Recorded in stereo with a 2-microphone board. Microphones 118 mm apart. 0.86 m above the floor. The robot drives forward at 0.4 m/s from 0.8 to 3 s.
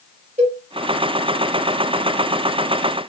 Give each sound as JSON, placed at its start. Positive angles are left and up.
{"t": 0.4, "sound": "a cowbell", "side_deg": -70, "distance_m": 1.0}